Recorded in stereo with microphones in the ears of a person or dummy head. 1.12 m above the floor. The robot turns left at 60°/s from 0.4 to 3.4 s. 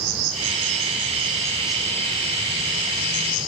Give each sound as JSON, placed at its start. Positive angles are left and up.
{"t": 0.0, "sound": "an insect", "azimuth_deg": -105, "distance_m": 4.5}